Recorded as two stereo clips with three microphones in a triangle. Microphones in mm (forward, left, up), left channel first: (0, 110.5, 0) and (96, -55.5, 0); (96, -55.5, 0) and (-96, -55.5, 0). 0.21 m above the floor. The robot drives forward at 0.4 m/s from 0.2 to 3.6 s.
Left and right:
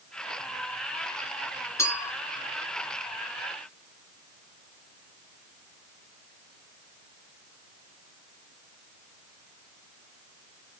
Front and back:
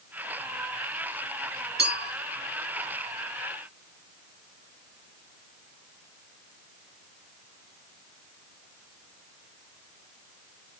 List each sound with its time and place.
1.8 s a clink: 165° right, 2 m; by 2.1 s 170° right, 2 m